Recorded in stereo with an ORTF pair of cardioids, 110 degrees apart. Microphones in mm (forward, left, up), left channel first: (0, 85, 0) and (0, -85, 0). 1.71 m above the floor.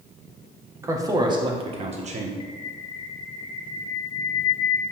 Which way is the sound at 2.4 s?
30° left.